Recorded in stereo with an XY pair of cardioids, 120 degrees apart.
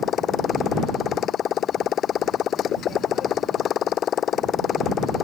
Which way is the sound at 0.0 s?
55° left.